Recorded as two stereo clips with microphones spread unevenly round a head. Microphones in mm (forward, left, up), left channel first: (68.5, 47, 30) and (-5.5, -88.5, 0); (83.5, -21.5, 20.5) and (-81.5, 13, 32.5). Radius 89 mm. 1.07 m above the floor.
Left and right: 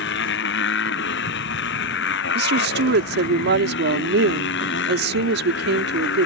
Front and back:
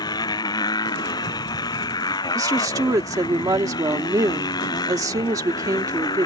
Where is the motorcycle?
60° left.